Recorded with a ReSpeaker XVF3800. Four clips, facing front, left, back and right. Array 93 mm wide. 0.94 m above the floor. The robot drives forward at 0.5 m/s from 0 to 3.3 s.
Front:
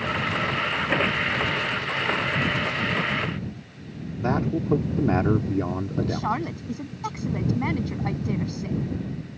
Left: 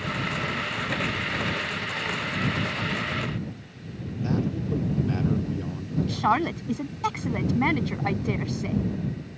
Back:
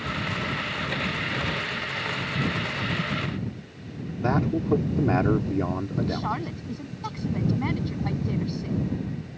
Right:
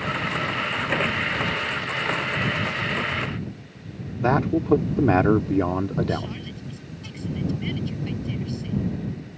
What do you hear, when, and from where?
4.2 s a man speaking: 90° right
6.1 s a woman speaking: 85° left